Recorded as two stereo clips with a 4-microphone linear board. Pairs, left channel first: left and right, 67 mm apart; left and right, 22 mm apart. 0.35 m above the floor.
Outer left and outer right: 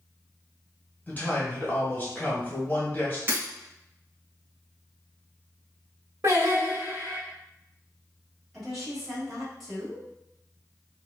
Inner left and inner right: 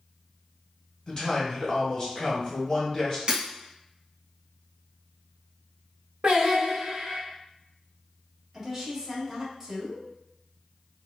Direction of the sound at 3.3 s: 35° right (ahead or behind).